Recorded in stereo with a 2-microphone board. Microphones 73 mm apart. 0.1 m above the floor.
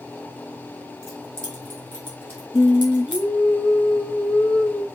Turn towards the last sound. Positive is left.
turn(degrees=15)  # may be behind; listen again after turning